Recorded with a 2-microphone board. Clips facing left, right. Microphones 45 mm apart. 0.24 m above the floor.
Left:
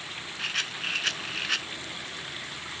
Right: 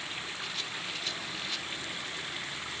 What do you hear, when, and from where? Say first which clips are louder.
0.4 s a rattle: left 6 dB; 70° left (ahead or behind)